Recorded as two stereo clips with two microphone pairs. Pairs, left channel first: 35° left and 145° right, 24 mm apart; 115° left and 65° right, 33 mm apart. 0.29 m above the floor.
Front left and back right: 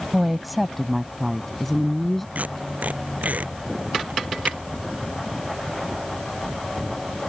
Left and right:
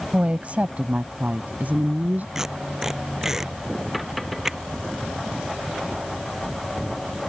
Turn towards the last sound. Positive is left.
turn(degrees=-140)